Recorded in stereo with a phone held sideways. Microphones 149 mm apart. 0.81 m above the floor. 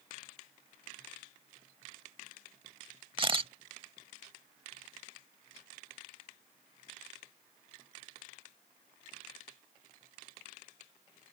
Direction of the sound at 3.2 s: 35° right (ahead or behind).